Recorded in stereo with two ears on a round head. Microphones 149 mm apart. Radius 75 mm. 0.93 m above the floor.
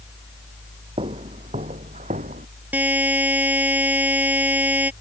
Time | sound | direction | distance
1.0 | footsteps | 30° right (ahead or behind) | ?
2.7 | a buzzer | 10° right (ahead or behind) | ?